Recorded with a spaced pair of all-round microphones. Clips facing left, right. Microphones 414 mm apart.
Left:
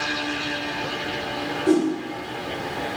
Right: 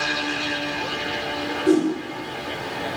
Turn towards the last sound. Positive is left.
turn(degrees=-40)  # may be behind; listen again after turning